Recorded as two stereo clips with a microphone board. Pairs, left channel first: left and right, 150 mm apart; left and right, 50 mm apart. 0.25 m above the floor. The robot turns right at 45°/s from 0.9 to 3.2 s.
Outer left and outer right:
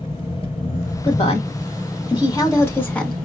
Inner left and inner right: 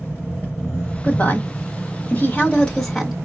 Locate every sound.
0.0 s an engine running: 145° left, 3.5 m; by 3.3 s 115° right, 3.5 m
1.0 s a woman speaking: 40° left (ahead or behind), 1.4 m; by 3.2 s centre (ahead or behind), 1.4 m